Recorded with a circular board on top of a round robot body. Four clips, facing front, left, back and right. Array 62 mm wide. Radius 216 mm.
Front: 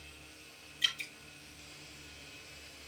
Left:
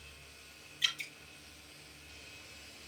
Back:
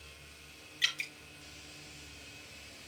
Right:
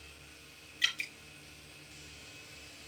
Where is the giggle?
I don't hear a giggle.